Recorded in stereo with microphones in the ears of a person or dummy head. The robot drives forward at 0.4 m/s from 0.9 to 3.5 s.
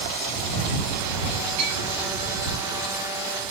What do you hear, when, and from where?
1.6 s a clink: 40° right (ahead or behind), 4 m